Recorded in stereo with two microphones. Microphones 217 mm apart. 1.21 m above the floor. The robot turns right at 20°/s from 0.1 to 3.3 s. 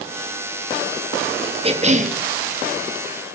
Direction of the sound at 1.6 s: 25° right (ahead or behind).